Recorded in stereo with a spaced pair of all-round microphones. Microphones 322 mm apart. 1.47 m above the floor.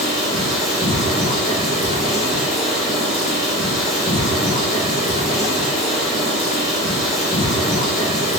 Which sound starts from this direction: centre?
Running water, at 0.0 s.